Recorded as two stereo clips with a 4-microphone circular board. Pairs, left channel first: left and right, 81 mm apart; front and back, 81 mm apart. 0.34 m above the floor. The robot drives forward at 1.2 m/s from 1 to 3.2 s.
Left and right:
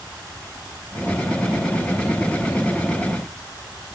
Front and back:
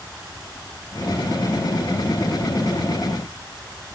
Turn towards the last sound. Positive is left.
No sound to turn to.